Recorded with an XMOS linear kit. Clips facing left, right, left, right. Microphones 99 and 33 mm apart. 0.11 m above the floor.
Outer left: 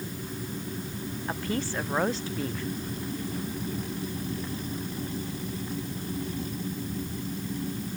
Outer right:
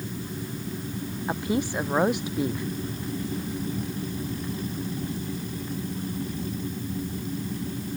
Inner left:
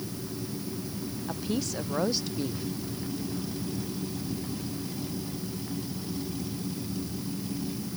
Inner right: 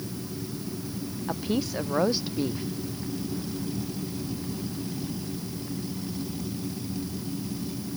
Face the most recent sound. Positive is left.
turn(degrees=-15)  # may be behind; listen again after turning